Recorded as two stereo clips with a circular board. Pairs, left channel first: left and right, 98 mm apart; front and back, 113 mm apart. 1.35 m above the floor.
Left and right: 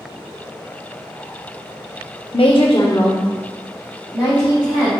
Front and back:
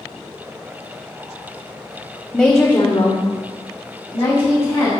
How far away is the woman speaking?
About 0.7 m.